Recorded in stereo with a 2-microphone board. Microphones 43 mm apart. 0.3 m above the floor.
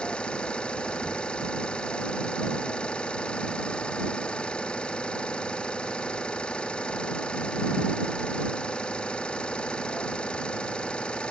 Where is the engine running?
25° left (ahead or behind).